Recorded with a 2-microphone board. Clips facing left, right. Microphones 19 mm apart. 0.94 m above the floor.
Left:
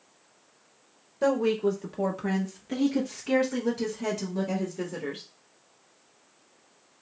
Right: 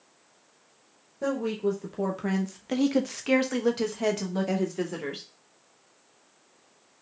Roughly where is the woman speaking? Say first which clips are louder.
Left 4 dB; left.